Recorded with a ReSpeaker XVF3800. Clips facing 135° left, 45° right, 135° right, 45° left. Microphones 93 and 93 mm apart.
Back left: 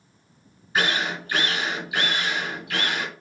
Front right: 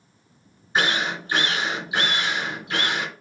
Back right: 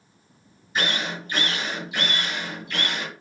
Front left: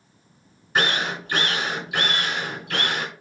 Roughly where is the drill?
Ahead.